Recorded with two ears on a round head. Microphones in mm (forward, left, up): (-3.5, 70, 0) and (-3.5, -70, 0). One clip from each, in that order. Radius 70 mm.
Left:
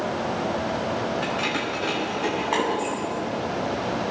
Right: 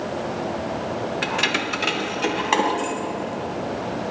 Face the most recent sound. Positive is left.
turn(degrees=-55)  # may be behind; listen again after turning